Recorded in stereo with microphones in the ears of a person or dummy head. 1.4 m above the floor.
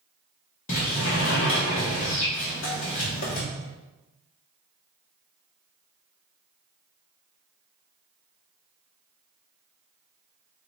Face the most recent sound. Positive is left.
turn(degrees=50)  # may be behind; listen again after turning